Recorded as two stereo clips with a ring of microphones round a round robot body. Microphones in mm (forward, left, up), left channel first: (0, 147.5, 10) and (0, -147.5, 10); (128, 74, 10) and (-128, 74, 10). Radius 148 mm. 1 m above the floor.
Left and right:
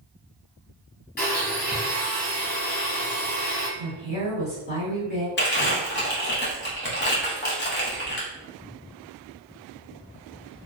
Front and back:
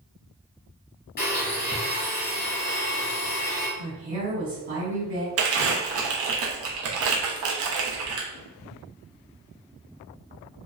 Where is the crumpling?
145° left, 0.7 m.